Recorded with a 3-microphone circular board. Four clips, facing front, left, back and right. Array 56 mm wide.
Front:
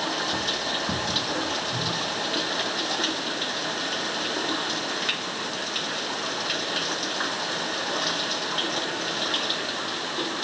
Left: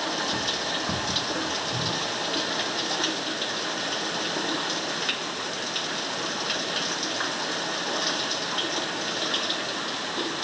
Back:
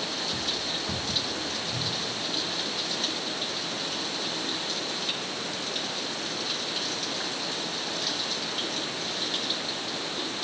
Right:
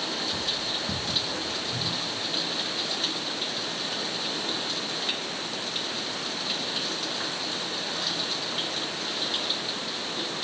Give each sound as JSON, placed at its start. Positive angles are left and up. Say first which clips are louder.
{"t": 0.0, "sound": "running water", "louder": "left 4 dB, front 5 dB", "azimuth_deg": 40}